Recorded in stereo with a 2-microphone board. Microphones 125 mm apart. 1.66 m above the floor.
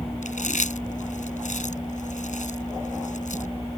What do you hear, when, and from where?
0.2 s chewing: 80° left